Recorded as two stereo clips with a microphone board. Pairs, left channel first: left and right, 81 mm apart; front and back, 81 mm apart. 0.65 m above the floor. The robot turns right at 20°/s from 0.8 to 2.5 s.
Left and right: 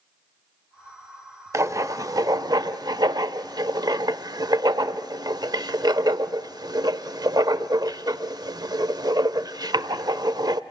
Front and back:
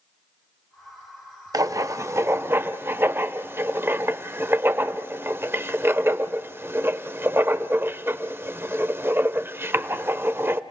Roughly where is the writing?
Behind right.